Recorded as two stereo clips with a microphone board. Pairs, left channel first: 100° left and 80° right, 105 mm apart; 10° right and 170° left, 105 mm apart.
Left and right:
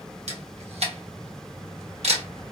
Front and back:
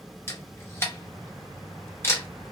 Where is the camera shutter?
80° right, 0.8 m.